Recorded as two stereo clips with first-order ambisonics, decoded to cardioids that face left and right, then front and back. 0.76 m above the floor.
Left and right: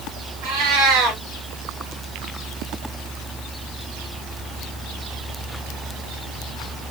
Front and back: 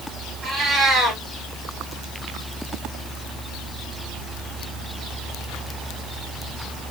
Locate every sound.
0.4 s a cat meowing: 105° right, 1.7 m